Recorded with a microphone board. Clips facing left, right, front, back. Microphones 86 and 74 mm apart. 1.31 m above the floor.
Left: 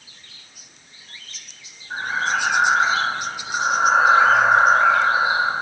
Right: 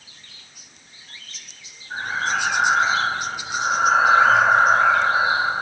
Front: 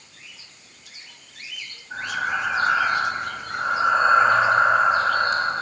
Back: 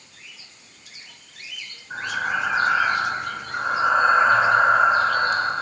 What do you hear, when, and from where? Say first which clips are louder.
1.9 s breathing: left 1 dB, even; 150° left, 2.5 m